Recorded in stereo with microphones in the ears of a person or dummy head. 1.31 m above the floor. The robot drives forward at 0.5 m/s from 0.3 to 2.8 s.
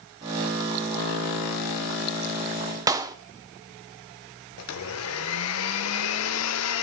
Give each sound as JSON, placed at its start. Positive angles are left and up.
{"t": 2.9, "sound": "a clap", "side_deg": -15, "distance_m": 0.6}
{"t": 4.6, "sound": "a blender", "side_deg": 80, "distance_m": 0.9}